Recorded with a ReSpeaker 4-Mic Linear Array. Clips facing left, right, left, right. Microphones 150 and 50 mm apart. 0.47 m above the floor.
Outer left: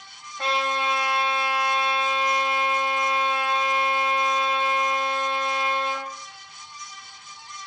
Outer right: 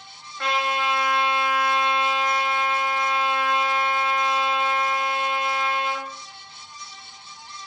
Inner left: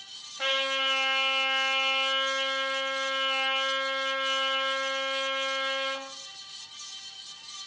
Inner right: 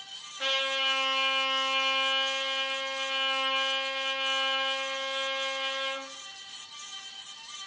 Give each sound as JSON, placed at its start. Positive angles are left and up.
{"t": 0.4, "sound": "a trumpet", "side_deg": 30, "distance_m": 1.7}